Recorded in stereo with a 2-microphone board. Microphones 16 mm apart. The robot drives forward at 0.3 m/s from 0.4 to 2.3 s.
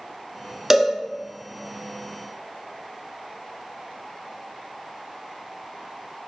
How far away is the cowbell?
About 0.6 m.